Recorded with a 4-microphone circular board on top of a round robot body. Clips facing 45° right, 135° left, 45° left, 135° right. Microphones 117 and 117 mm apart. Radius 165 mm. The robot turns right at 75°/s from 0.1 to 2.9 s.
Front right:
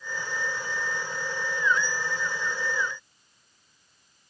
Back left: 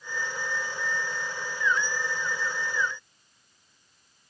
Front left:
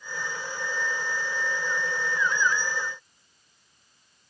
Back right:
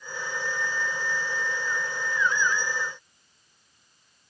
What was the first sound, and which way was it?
Only background noise.